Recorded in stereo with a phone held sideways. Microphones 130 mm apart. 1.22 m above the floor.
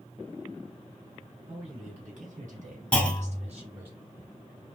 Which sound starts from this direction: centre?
A clunk, at 2.9 s.